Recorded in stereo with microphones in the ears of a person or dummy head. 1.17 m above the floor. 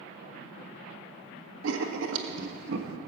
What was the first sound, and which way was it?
Writing, 70° right (ahead or behind).